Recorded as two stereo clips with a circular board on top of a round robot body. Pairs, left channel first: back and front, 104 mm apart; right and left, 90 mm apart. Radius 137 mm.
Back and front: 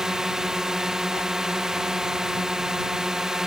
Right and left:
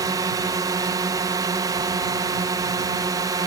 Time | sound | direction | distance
0.0 | a drone | 80° left | ?